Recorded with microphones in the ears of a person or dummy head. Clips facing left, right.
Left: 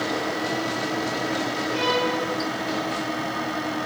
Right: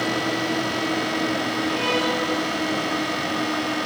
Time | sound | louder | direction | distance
1.7 | a violin | left 2 dB | 20° left (ahead or behind) | 8 m